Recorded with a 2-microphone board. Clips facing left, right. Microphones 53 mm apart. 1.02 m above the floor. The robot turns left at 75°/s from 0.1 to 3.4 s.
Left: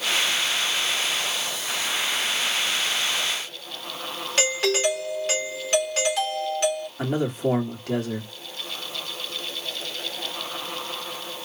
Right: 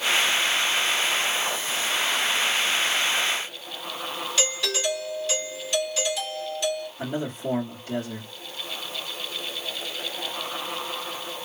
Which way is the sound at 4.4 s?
50° left (ahead or behind).